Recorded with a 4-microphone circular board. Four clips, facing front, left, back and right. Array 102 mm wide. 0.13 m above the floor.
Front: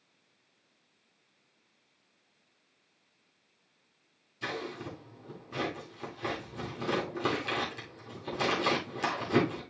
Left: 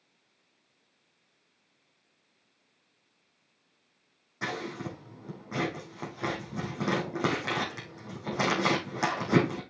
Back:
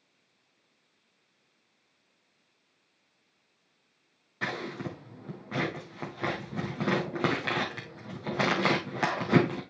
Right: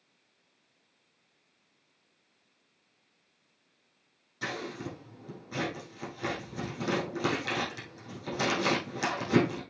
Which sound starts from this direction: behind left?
Scissors, at 4.4 s.